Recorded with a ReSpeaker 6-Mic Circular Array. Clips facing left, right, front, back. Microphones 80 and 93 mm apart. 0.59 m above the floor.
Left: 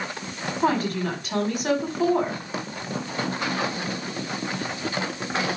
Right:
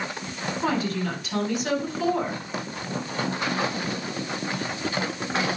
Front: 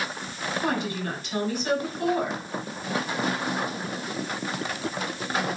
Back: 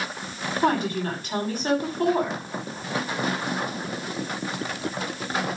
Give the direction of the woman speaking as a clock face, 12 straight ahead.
8 o'clock.